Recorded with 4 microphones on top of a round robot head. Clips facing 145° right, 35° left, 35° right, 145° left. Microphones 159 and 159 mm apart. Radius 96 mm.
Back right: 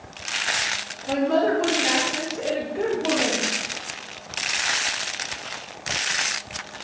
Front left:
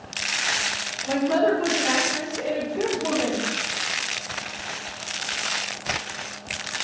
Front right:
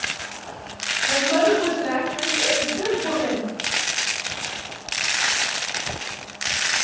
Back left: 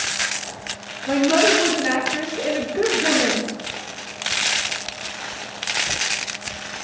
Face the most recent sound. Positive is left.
turn(degrees=120)